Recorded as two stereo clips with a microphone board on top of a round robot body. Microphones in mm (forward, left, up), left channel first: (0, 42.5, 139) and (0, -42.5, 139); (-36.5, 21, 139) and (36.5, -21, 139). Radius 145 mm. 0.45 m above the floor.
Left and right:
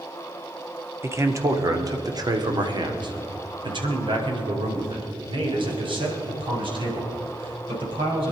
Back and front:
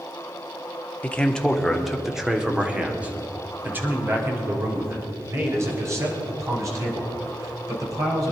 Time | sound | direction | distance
1.0 | a man speaking | 140° right | 1.6 m